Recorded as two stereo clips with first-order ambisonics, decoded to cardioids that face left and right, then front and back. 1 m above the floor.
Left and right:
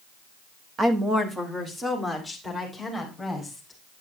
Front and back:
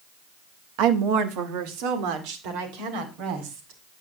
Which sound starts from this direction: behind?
A woman speaking, at 0.8 s.